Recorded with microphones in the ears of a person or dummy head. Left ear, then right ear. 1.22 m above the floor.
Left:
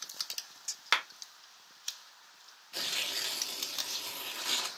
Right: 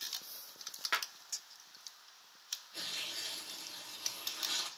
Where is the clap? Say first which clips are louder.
Left 6 dB; 45° left (ahead or behind), 1.0 m.